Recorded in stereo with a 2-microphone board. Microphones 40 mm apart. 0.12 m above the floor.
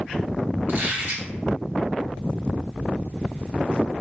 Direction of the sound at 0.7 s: 50° right (ahead or behind).